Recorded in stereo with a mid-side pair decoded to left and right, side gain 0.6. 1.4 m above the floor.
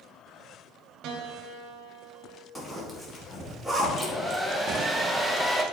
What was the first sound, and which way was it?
A piano, 60° right.